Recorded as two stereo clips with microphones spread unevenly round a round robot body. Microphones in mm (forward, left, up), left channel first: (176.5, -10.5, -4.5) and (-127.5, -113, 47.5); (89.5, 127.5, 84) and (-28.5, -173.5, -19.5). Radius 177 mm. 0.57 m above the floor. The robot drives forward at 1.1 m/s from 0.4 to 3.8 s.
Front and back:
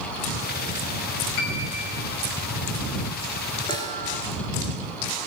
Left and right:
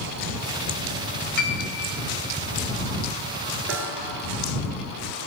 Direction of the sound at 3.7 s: 60° right.